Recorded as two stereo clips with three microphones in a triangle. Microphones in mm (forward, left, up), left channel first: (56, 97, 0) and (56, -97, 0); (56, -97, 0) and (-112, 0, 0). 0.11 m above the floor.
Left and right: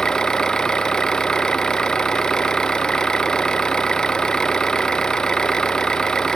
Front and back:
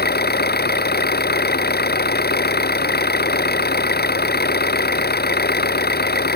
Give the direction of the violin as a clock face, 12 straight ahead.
I don't hear a violin.